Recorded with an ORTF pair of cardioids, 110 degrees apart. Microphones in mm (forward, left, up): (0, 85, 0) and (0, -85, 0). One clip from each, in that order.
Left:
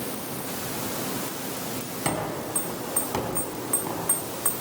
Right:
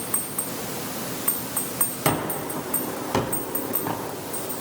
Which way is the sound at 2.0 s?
25° right.